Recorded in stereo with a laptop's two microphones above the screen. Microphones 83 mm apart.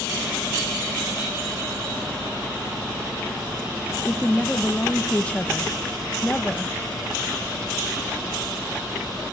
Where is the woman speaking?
15° left (ahead or behind), 0.9 m.